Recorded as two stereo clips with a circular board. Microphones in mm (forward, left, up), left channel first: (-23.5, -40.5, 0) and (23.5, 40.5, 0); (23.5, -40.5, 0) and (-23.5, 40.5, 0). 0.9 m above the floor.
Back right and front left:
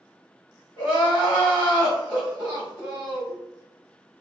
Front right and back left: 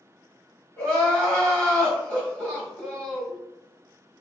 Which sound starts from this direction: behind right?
Crying, at 0.8 s.